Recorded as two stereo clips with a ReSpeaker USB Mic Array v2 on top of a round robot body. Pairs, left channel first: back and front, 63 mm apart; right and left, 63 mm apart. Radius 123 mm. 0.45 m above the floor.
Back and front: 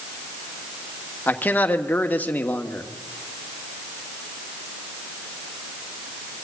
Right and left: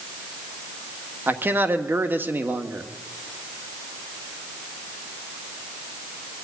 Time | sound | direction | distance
1.3 | a man speaking | 130° left | 1.6 m